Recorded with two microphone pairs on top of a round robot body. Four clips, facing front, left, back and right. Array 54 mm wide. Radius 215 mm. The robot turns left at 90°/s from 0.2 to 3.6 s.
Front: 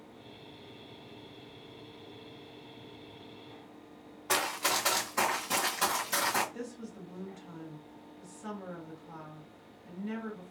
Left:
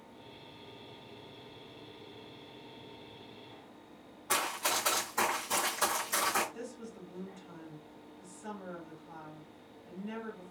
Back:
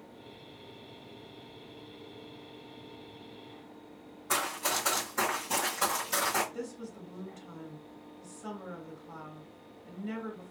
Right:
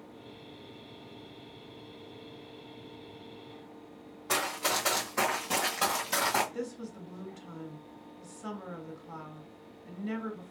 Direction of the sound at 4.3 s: 15° right.